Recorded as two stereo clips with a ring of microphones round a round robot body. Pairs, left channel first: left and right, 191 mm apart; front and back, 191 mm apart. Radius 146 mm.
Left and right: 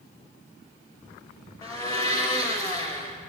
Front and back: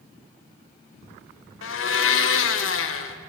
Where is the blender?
10° left, 0.5 m.